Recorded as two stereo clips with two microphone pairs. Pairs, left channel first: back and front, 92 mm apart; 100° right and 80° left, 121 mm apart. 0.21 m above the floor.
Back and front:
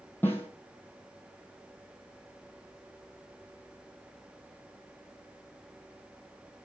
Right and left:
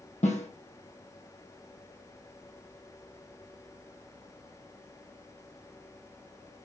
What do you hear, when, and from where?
0.2 s a snare drum: 110° right, 3 m